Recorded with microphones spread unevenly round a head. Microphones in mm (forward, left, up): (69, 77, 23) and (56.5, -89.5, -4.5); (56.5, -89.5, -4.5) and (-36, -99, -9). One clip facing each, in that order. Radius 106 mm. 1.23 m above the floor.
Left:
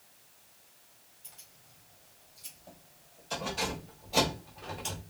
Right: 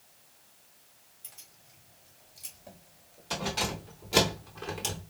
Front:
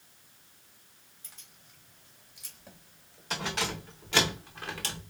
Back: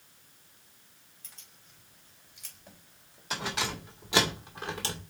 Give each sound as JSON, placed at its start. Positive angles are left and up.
{"t": 1.2, "sound": "keys jangling", "azimuth_deg": -70, "distance_m": 5.0}